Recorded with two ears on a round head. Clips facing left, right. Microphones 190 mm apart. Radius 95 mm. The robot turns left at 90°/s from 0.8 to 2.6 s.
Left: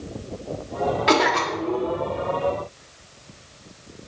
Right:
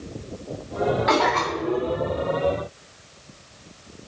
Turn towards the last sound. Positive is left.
turn(degrees=-95)